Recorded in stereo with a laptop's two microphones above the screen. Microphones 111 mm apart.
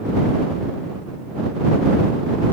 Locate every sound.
Only background noise.